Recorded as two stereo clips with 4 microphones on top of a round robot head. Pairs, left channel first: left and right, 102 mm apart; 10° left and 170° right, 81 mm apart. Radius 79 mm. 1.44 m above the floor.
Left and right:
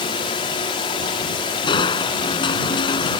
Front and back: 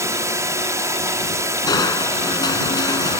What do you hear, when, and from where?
0.0 s a drone: 135° left
1.7 s crushing: 50° left